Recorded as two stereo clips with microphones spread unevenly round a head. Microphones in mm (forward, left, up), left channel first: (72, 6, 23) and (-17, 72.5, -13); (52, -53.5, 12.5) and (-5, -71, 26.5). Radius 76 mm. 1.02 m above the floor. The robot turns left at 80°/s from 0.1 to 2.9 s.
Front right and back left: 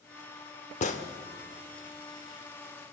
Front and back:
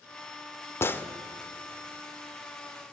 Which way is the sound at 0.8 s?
35° right.